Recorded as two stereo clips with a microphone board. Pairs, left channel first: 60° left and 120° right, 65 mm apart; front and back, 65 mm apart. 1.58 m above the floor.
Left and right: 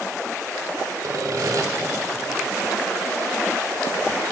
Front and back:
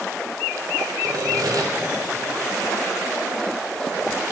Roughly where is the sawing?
Behind right.